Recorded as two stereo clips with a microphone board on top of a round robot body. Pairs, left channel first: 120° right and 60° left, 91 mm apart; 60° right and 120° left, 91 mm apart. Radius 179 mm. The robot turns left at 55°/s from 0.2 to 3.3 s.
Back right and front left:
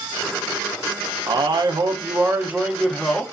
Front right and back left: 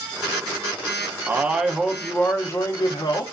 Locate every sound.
1.3 s a man speaking: 60° left, 0.7 m; by 3.2 s 50° right, 0.7 m